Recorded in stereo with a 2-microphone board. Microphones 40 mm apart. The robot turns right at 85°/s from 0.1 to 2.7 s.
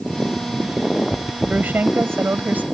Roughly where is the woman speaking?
Behind right.